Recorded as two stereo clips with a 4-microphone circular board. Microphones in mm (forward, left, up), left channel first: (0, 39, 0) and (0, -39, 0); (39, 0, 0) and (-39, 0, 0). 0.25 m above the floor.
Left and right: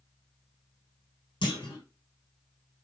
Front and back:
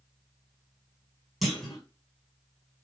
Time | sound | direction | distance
1.4 | a clunk | 95° left | 1.5 m